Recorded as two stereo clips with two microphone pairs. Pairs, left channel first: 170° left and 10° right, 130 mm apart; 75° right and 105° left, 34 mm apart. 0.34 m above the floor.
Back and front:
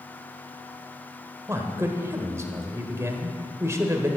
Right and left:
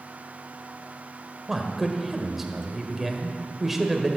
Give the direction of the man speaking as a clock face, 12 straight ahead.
11 o'clock.